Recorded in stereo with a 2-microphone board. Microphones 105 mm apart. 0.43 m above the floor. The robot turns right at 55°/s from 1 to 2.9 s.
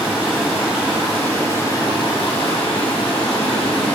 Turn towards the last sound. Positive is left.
turn(degrees=100)